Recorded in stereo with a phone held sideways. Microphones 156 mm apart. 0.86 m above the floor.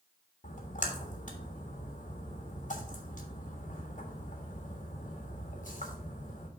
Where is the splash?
55° left (ahead or behind), 1.5 m.